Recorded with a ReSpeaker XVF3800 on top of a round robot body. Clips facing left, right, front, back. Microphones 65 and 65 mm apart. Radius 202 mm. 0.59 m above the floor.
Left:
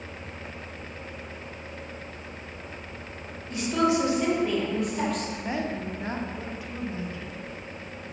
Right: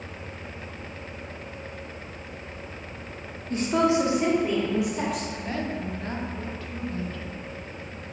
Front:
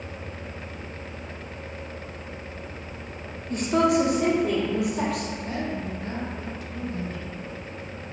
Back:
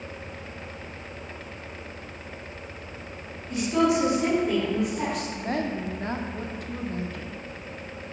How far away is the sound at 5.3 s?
About 1.2 m.